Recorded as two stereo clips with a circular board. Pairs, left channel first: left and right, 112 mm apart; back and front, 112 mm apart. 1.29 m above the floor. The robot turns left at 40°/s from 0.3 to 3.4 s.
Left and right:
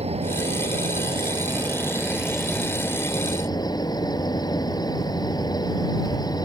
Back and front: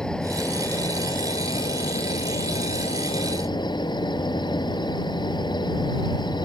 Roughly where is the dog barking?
No dog barking in this recording.